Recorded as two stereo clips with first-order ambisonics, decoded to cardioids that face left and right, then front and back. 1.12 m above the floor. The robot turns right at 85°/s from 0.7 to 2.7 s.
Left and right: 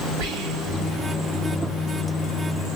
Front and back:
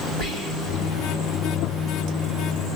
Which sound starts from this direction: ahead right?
Whispering, at 0.2 s.